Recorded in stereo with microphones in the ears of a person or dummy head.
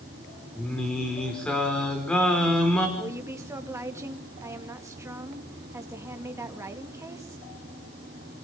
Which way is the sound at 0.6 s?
5° left (ahead or behind).